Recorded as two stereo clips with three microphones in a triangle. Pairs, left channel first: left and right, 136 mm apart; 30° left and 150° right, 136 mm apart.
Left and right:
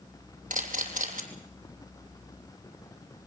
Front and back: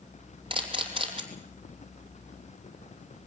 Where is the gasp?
No gasp in this recording.